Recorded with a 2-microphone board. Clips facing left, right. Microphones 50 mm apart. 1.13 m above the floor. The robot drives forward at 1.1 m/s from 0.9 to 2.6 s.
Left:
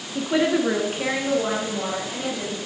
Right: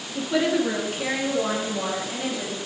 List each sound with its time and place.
0.1 s a woman speaking: 20° left (ahead or behind), 0.8 m; by 2.6 s 5° left (ahead or behind), 2.5 m